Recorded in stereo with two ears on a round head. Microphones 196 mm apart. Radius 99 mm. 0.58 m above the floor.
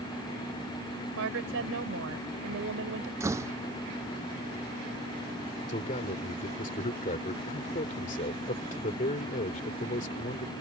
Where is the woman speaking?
65° right (ahead or behind).